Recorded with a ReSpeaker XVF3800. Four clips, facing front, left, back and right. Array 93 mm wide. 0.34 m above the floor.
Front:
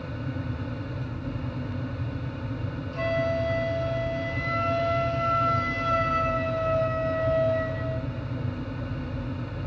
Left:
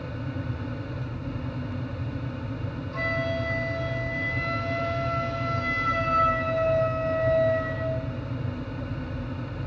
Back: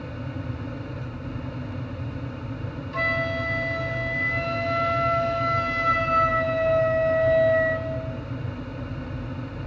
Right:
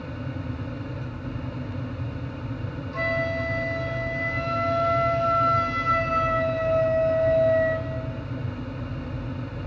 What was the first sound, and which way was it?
A flute, 175° right.